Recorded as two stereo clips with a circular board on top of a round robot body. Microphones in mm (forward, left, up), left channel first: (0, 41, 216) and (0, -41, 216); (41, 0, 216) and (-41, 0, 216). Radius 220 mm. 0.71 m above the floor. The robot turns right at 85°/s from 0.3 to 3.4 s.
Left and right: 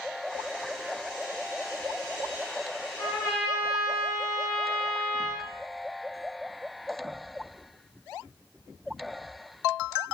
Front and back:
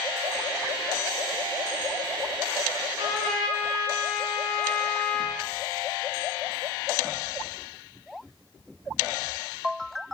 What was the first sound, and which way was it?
A trumpet, 130° left.